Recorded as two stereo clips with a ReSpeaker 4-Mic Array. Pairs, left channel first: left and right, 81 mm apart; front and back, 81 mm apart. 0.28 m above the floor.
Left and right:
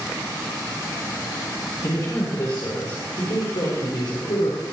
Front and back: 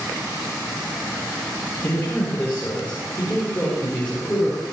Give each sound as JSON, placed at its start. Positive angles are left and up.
{"t": 1.8, "sound": "a man speaking", "azimuth_deg": 60, "distance_m": 7.5}